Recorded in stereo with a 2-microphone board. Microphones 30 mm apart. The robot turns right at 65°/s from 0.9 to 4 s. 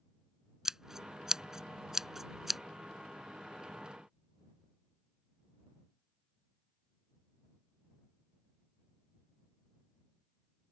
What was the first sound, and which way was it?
Scissors, 15° right (ahead or behind).